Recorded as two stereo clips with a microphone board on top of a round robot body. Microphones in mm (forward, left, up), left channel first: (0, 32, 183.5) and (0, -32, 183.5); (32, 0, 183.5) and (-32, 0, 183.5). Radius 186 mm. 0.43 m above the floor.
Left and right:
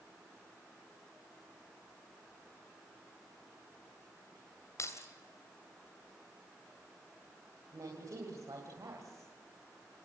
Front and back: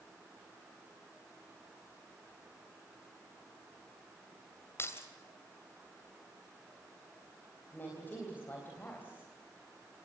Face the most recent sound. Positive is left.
turn(degrees=-60)